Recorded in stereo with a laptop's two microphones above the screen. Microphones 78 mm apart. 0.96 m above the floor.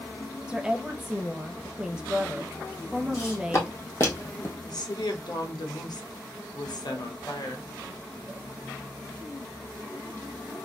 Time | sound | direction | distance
0.5 | a woman speaking | 15° right (ahead or behind) | 0.7 m
3.1 | footsteps | 35° left (ahead or behind) | 2 m
4.6 | a woman speaking | 60° left (ahead or behind) | 1.0 m